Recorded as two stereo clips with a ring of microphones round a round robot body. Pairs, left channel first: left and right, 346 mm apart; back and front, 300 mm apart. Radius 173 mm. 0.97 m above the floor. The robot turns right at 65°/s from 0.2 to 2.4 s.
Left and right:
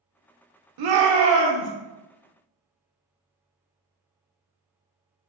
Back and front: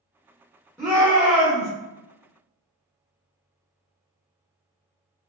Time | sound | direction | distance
0.8 | a shout | 95° right | 0.7 m